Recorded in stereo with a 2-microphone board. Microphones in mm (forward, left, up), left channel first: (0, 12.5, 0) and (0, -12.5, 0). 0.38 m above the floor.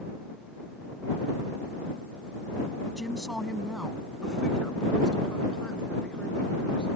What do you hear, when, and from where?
3.0 s a woman speaking: 15° right (ahead or behind); by 7.0 s 40° left (ahead or behind)